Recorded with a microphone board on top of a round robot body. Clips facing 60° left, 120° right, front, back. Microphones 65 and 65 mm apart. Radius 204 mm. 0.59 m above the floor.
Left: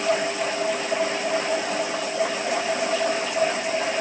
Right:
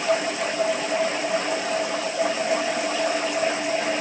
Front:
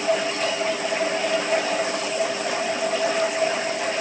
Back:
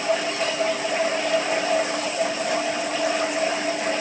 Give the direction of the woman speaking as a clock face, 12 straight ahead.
I don't hear a woman speaking.